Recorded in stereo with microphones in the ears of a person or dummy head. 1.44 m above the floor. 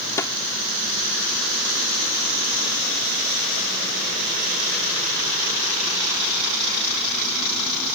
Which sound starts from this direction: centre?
A snare drum, at 0.2 s.